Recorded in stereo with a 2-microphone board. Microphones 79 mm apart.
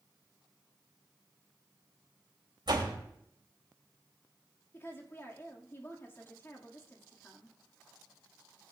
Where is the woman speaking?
30° left (ahead or behind), 2 m.